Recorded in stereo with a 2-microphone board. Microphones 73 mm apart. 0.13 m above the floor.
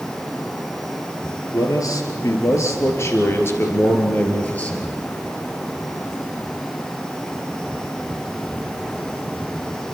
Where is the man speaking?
55° left (ahead or behind), 3.5 m; by 4.9 s 20° left (ahead or behind), 3 m.